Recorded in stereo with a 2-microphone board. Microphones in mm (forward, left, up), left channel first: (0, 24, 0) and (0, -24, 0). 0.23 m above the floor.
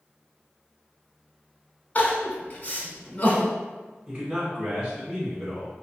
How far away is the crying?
About 0.9 m.